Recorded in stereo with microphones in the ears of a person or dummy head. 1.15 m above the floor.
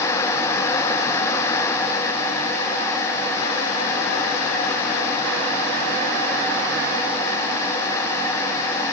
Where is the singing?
I don't hear singing.